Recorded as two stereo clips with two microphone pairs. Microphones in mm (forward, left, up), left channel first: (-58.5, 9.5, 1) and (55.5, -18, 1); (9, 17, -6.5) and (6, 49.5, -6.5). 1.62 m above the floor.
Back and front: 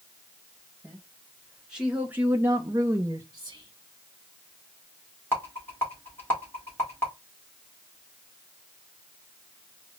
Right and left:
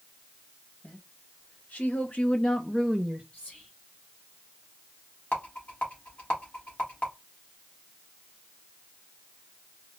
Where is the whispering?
60° right, 1.0 m.